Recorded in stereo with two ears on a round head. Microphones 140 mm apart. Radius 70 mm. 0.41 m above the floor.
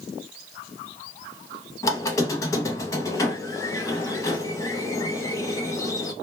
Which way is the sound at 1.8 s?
20° left (ahead or behind).